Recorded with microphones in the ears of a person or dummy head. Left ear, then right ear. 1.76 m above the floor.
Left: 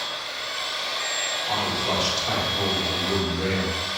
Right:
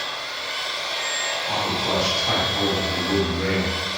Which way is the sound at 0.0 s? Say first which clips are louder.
Right 1 dB; 30° right (ahead or behind).